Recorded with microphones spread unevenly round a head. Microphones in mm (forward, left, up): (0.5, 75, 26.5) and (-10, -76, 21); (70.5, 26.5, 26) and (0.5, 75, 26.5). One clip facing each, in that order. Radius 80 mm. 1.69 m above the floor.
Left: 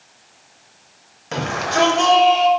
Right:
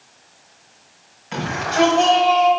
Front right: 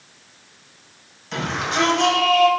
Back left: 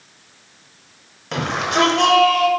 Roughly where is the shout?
Behind left.